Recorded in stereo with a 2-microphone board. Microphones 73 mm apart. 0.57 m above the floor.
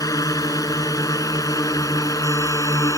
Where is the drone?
55° left (ahead or behind); by 3.0 s 50° left (ahead or behind).